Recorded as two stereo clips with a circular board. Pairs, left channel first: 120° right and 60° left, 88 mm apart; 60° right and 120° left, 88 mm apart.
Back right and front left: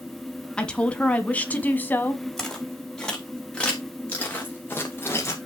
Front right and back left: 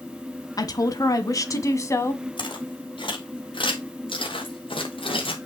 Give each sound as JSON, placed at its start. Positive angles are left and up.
{"t": 0.6, "sound": "a woman speaking", "azimuth_deg": -45, "distance_m": 1.9}
{"t": 2.4, "sound": "footsteps", "azimuth_deg": -35, "distance_m": 5.0}